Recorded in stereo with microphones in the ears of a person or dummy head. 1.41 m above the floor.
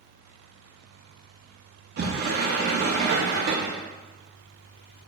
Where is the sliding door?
55° right (ahead or behind), 0.7 m.